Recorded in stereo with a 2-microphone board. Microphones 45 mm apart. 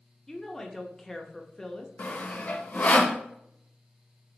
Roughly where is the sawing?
Left.